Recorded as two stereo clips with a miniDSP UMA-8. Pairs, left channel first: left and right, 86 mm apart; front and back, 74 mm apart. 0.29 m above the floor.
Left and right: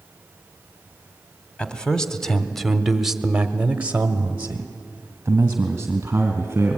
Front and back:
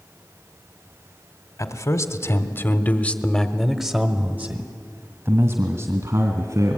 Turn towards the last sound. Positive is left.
turn(degrees=-150)